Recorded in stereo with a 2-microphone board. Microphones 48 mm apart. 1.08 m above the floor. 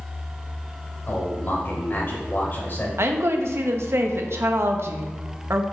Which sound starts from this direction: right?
A woman speaking, at 3.0 s.